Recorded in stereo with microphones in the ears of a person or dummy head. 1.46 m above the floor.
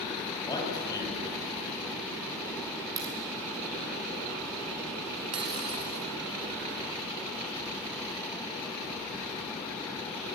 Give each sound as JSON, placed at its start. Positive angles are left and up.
{"t": 0.4, "sound": "a man speaking", "side_deg": 15, "distance_m": 7.5}
{"t": 3.0, "sound": "a crack", "side_deg": -25, "distance_m": 5.5}
{"t": 5.3, "sound": "breaking glass", "side_deg": -25, "distance_m": 2.0}